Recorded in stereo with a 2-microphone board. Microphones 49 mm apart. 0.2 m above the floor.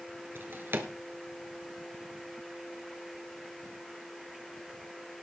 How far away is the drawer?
About 1.7 m.